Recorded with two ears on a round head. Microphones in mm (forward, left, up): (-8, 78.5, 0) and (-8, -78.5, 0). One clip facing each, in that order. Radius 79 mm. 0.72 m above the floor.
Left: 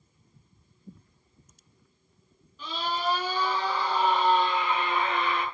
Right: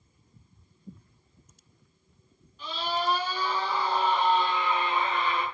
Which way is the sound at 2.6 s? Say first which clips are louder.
Even; 70° left (ahead or behind).